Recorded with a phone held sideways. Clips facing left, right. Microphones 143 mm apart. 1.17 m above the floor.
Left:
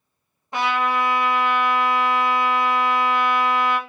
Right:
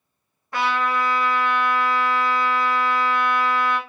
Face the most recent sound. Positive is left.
turn(degrees=20)  # may be behind; listen again after turning